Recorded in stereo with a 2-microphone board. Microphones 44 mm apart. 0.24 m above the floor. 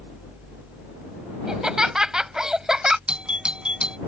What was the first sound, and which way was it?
Laughter, 15° right (ahead or behind).